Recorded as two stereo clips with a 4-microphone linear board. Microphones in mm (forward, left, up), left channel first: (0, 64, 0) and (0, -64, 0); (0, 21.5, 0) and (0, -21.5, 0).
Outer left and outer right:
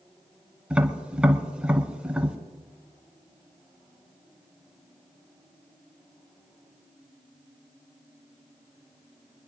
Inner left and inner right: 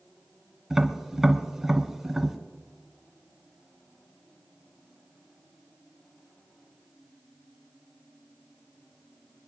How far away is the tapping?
About 1.5 m.